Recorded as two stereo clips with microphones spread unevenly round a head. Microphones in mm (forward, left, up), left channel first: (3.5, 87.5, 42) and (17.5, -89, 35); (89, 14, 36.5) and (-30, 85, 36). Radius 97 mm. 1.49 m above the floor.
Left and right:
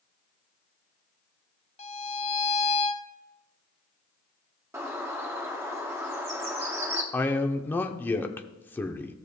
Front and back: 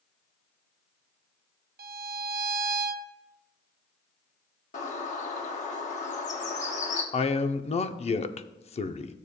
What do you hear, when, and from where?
1.8 s a violin: 155° left, 0.6 m
4.7 s a bird: 10° right, 1.0 m
7.1 s a man speaking: 15° left, 0.7 m